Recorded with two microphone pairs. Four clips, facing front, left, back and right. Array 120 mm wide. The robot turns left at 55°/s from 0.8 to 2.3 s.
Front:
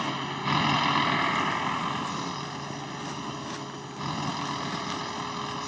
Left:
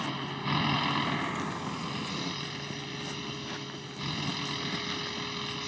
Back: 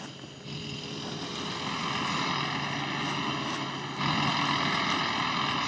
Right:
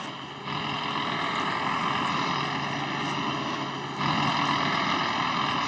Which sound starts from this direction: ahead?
A vehicle, at 0.0 s.